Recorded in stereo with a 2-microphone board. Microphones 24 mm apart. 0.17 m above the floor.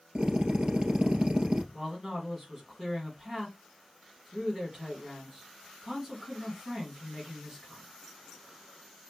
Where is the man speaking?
20° right (ahead or behind), 1.7 m.